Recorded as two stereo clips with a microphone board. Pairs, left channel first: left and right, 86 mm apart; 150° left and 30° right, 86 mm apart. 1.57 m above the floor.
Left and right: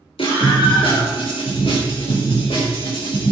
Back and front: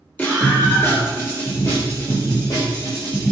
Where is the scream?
75° left, 5.5 m; by 3.3 s 110° left, 7 m.